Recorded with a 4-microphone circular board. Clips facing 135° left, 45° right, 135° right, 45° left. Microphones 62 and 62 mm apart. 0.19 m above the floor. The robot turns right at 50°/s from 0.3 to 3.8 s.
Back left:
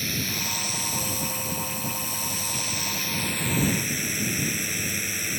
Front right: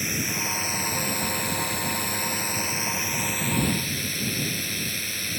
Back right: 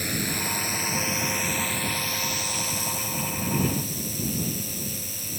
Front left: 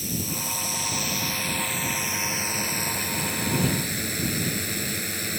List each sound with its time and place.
0.0 s a drone: 115° right; by 5.4 s 60° left